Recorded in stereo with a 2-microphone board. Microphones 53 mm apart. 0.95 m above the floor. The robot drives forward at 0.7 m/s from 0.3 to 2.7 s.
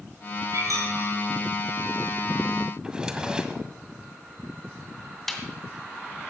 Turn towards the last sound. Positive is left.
turn(degrees=5)  # may be behind; listen again after turning